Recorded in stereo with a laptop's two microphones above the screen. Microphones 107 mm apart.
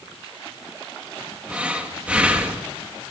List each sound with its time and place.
1.5 s breathing: 15° right (ahead or behind), 1.8 m